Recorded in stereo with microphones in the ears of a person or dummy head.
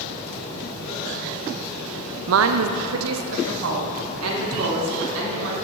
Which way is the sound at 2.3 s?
70° right (ahead or behind).